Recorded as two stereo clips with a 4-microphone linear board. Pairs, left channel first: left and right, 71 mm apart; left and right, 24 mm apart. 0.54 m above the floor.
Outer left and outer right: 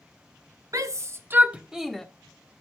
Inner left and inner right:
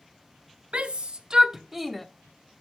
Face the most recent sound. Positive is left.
turn(degrees=5)  # may be behind; listen again after turning